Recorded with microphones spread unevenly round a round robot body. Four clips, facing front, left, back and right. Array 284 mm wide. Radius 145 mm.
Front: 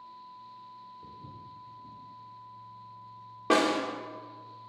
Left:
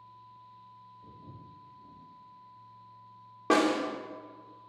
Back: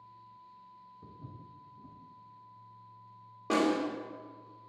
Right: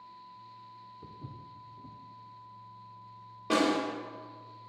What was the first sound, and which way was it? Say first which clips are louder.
Footsteps: right 3 dB, front 4 dB; 110° right.